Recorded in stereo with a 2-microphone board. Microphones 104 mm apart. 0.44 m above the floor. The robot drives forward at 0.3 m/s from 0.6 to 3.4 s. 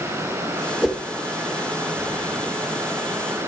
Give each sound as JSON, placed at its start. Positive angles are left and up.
{"t": 0.8, "sound": "a whoosh", "side_deg": 0, "distance_m": 1.3}